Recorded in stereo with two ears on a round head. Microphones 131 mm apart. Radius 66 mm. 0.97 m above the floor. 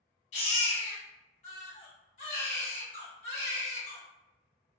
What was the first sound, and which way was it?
A baby crying, 50° left (ahead or behind).